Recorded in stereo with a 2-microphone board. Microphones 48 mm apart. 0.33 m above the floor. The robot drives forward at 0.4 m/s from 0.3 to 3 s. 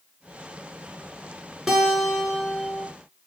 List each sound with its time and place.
1.7 s a guitar: 5° right (ahead or behind), 5.5 m